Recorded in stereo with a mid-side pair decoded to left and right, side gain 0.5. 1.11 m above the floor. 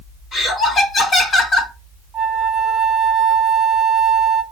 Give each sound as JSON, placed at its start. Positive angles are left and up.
{"t": 0.3, "sound": "laughter", "azimuth_deg": 50, "distance_m": 1.5}
{"t": 2.1, "sound": "a flute", "azimuth_deg": -10, "distance_m": 1.1}